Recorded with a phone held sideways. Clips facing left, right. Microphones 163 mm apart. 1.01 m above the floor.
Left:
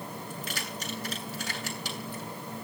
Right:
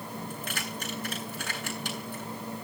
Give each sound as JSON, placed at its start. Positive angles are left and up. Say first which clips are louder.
{"t": 0.3, "sound": "keys jangling", "louder": "right 1 dB", "side_deg": -55, "distance_m": 8.5}